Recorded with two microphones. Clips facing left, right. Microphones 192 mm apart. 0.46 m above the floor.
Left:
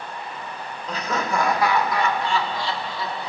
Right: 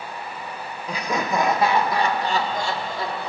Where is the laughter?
10° right (ahead or behind), 1.4 m; by 3.3 s 55° right (ahead or behind), 1.5 m.